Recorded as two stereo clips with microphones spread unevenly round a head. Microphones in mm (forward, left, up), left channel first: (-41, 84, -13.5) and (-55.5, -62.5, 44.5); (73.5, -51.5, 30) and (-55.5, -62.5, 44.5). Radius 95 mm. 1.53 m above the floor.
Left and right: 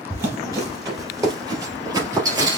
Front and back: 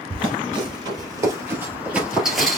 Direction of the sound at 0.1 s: 145° right.